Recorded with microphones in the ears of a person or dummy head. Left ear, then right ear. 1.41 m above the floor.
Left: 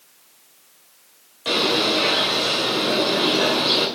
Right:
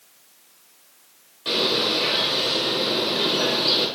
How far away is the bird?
About 2 m.